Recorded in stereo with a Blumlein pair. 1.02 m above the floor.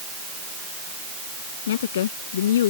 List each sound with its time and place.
1.7 s a woman speaking: 60° left